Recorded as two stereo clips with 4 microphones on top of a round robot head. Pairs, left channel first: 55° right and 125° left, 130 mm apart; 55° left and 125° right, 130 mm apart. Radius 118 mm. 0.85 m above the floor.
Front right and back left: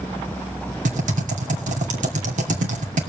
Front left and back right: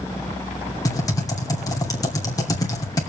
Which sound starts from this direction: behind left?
Typing on a keyboard, at 0.8 s.